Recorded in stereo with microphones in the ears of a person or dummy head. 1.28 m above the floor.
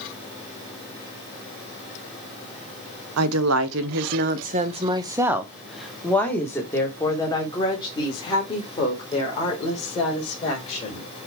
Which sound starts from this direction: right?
A woman speaking, at 3.2 s.